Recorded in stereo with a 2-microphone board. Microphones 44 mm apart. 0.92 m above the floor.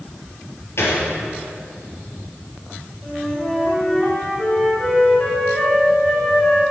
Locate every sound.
0.8 s a gunshot: 65° left (ahead or behind), 3.5 m
3.0 s a flute: 20° left (ahead or behind), 3.5 m